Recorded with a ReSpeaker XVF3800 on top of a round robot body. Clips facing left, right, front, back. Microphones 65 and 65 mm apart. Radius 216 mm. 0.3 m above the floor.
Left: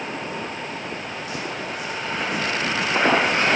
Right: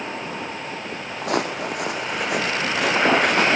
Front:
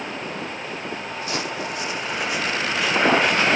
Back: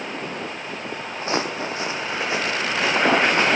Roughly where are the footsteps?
Behind right.